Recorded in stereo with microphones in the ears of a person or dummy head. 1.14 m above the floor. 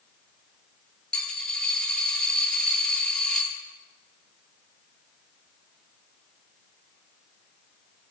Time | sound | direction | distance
1.1 | a dropped coin | centre (ahead or behind) | 4 m